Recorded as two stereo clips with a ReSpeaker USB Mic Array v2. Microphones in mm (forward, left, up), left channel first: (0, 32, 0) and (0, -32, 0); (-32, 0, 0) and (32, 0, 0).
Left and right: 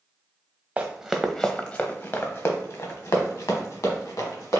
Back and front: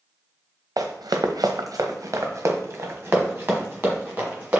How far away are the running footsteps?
About 0.6 m.